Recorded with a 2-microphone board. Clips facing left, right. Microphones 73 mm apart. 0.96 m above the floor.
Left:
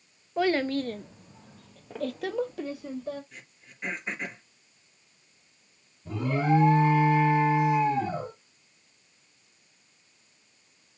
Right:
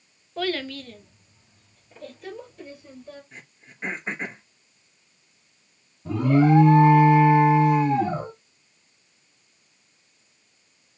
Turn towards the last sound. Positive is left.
turn(degrees=-60)  # may be behind; listen again after turning